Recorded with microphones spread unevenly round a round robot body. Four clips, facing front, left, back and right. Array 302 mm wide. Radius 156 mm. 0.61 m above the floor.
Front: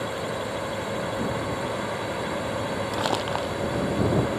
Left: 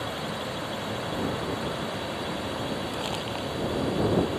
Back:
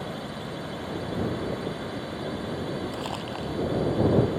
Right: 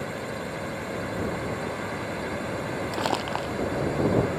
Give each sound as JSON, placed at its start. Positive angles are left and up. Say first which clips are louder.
{"t": 0.0, "sound": "a drone", "louder": "even, front 5 dB", "azimuth_deg": -5}
{"t": 2.9, "sound": "crumpling", "louder": "right 4 dB, front 7 dB", "azimuth_deg": -35}